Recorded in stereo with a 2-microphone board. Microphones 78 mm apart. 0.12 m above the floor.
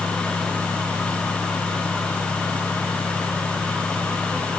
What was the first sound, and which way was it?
Only background noise.